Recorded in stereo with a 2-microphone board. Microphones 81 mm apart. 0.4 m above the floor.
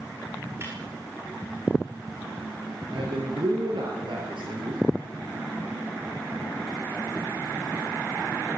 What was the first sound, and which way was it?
A snare drum, 30° right (ahead or behind).